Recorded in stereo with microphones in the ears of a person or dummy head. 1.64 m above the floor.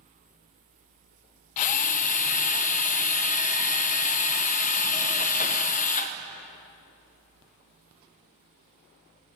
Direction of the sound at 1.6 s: 45° left (ahead or behind).